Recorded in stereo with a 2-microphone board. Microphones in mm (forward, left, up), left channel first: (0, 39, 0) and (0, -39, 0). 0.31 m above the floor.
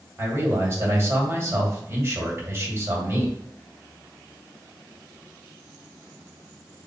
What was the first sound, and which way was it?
A man speaking, 40° right (ahead or behind).